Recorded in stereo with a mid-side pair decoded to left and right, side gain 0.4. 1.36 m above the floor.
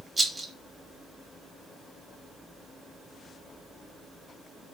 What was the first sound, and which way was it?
A rattle, 30° right.